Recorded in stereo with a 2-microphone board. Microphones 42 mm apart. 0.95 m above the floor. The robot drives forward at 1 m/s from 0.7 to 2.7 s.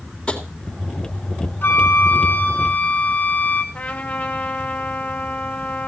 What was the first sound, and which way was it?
Tapping, 30° left (ahead or behind).